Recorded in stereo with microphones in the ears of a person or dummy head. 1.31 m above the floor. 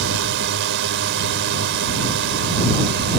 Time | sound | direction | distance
0.0 | a drone | 60° right (ahead or behind) | ?